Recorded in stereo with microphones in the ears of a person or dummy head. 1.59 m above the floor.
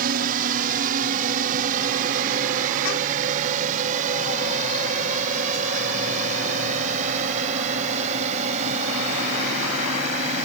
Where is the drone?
45° right (ahead or behind); by 10.4 s 35° right (ahead or behind).